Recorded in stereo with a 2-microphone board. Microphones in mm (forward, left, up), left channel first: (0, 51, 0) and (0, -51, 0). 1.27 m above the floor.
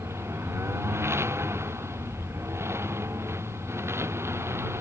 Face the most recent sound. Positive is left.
turn(degrees=-25)  # may be behind; listen again after turning